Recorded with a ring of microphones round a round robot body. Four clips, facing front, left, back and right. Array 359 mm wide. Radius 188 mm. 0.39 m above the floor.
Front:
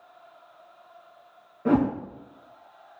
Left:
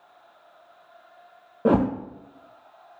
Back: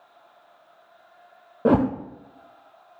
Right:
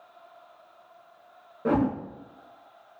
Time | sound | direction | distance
1.6 | a whoosh | 155° left | 1.0 m